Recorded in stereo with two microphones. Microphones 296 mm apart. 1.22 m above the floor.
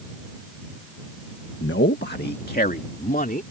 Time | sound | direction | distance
1.6 | a man speaking | 40° left (ahead or behind) | ?